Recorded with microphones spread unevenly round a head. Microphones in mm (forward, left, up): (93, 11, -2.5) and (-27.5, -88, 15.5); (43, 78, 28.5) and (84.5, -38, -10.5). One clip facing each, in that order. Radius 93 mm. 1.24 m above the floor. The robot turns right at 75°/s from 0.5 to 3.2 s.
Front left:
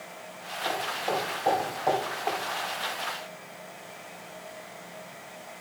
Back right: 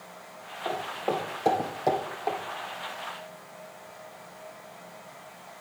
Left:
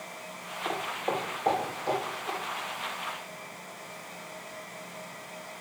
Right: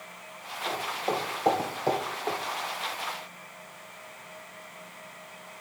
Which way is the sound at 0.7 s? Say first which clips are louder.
Back right 1 dB, right 1 dB; 155° left.